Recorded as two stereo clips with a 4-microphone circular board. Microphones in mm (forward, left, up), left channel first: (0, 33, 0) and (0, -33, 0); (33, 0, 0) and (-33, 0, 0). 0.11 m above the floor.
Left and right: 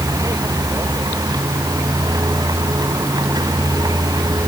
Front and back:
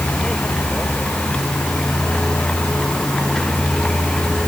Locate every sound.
0.0 s a vehicle: 75° right; by 4.5 s 80° right